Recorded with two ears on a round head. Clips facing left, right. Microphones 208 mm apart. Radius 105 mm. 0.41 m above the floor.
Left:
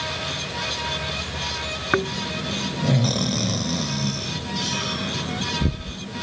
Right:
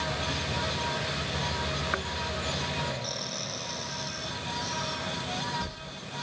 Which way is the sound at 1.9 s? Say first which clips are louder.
Left 11 dB; 65° left (ahead or behind).